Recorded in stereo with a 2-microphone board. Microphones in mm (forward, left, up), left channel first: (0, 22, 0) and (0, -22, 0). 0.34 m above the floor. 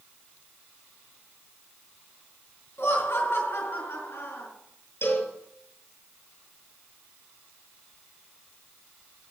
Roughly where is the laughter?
Left.